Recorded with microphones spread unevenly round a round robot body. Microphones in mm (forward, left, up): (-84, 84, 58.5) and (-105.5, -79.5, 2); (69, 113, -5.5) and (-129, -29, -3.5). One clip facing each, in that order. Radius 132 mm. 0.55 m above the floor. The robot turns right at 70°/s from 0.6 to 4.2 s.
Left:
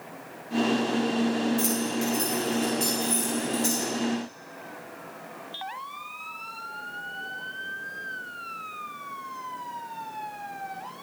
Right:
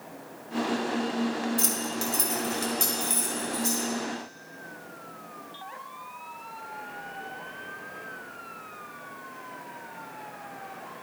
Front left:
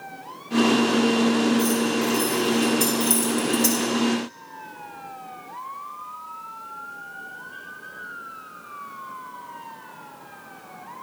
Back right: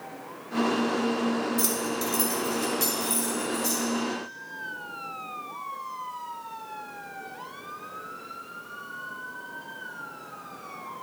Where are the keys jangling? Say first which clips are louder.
Left 5 dB, front left 8 dB; 135° right, 2 m; by 3.8 s 25° left, 2 m.